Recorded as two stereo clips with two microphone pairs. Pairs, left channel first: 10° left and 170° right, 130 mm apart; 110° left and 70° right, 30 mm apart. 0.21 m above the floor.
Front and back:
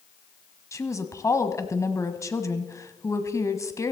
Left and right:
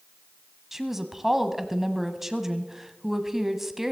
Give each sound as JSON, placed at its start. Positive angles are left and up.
{"t": 0.7, "sound": "a woman speaking", "azimuth_deg": -10, "distance_m": 1.1}